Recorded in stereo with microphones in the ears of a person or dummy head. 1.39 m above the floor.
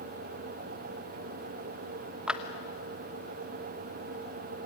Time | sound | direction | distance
2.3 | a clap | 5° right (ahead or behind) | 1.0 m